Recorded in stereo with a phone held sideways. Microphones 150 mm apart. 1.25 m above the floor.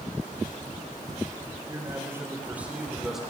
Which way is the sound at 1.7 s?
20° right (ahead or behind).